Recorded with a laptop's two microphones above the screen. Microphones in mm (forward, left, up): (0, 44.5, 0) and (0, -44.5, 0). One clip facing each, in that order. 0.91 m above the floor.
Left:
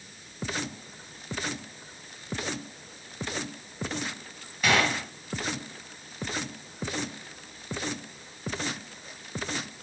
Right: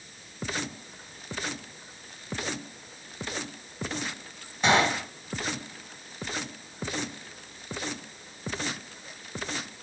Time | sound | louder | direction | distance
4.6 | a gunshot | right 2 dB | 25° right (ahead or behind) | 2.5 m